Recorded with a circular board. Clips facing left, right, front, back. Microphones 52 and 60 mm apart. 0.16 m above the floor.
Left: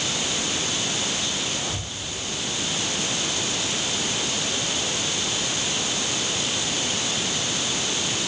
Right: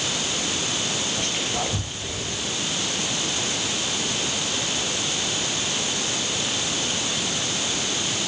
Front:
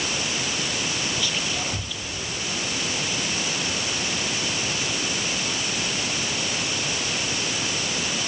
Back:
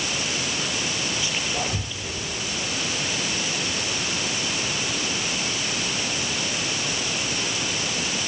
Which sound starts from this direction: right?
Whispering, at 1.2 s.